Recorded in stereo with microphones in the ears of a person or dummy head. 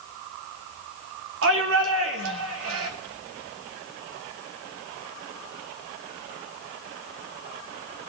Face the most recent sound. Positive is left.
turn(degrees=-75)  # may be behind; listen again after turning